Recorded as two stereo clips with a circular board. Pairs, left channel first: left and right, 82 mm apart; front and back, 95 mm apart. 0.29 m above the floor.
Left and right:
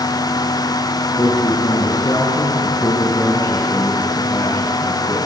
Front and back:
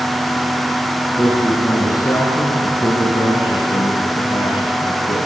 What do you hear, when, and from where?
1.2 s a man speaking: 55° left, 5 m; by 5.3 s 25° left, 8.5 m